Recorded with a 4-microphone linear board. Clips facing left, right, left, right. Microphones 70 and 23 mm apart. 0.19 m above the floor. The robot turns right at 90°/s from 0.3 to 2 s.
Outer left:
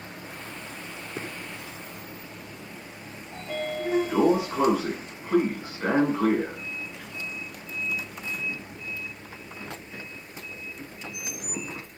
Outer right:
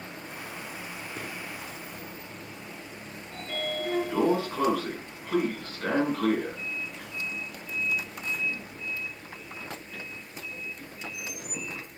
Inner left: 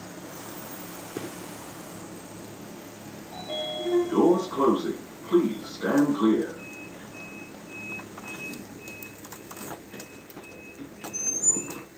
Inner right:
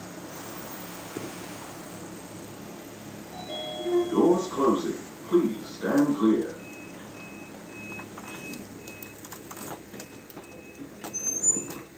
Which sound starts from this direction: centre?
A sliding door, at 3.3 s.